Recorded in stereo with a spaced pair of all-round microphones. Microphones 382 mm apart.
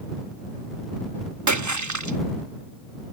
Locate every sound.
1.5 s a splash: 50° right (ahead or behind)